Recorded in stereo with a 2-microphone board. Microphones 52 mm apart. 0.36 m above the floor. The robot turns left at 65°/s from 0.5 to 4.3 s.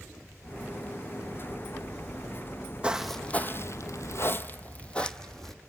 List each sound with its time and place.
2.8 s footsteps: 20° right (ahead or behind), 0.9 m; by 5.5 s 5° left (ahead or behind), 1.0 m